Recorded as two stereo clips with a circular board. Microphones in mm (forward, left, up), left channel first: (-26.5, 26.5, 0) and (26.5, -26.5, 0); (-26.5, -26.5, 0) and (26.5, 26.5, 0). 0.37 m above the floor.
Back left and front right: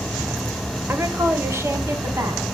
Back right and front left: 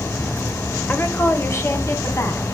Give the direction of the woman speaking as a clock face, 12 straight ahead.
3 o'clock.